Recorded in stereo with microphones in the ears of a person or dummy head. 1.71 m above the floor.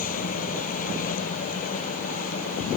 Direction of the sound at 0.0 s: 45° left (ahead or behind).